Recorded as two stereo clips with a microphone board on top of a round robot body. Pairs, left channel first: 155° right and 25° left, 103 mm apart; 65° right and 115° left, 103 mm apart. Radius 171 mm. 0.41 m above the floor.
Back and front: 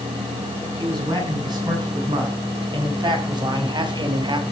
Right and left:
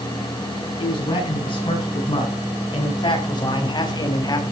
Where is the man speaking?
25° right, 8 m; by 4.4 s 20° right, 4 m.